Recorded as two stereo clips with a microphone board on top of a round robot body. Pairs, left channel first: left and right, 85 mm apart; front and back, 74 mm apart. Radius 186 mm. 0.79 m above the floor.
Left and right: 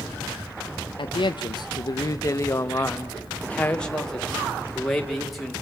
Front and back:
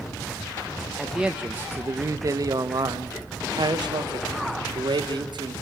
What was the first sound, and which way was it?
A man speaking, 95° left.